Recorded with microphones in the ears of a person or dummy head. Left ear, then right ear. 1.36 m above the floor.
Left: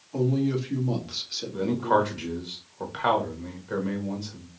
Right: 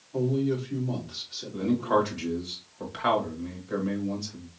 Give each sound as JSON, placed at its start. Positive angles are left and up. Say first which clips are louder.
{"t": 0.1, "sound": "a man speaking", "louder": "left 1 dB", "side_deg": 65, "distance_m": 2.0}
{"t": 1.5, "sound": "a man speaking", "louder": "left 2 dB", "side_deg": 10, "distance_m": 1.1}